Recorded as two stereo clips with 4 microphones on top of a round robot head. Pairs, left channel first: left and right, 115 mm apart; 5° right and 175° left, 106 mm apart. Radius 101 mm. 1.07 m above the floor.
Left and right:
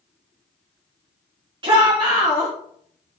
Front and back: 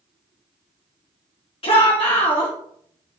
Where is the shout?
40° right, 2.5 m.